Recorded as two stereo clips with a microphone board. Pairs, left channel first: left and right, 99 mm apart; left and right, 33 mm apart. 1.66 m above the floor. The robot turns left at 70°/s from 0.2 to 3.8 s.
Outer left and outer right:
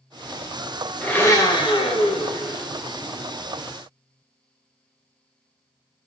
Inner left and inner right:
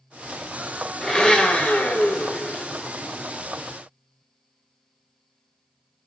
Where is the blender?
165° left, 1.6 m; by 2.7 s 50° left, 1.6 m.